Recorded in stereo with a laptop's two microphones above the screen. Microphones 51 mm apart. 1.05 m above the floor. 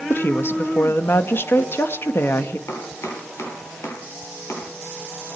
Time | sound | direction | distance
0.1 | a woman speaking | 50° left (ahead or behind) | 1.9 m
2.7 | chopping | 65° left (ahead or behind) | 7.5 m